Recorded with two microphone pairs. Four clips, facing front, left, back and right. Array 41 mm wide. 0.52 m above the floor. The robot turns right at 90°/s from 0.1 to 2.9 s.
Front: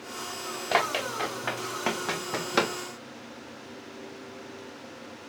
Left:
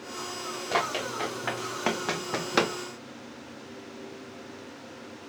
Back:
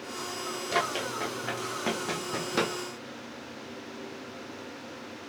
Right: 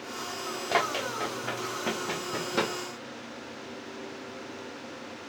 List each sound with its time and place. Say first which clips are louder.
0.7 s running footsteps: right 1 dB, front 4 dB; 10° right, 2.5 m; by 2.8 s 60° left, 1.1 m